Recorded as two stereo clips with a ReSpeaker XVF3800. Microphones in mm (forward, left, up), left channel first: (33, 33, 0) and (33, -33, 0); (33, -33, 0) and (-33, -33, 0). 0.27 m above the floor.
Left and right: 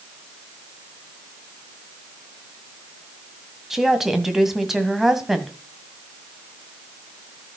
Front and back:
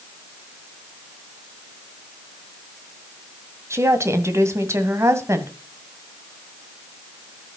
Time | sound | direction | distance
3.7 | a woman speaking | 175° right | 1.8 m